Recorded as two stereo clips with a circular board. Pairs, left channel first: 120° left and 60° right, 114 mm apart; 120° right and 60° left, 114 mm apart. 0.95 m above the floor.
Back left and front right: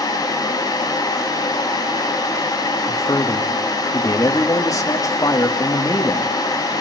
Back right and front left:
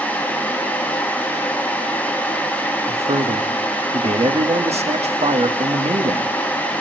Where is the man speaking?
60° left, 1.9 m.